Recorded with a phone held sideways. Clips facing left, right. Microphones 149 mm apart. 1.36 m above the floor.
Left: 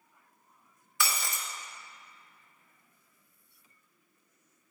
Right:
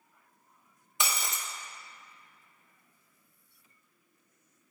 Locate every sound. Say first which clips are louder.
1.0 s breaking glass: even; 20° right (ahead or behind), 0.6 m